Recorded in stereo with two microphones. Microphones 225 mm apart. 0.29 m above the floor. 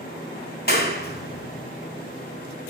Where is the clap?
45° left (ahead or behind), 1.2 m.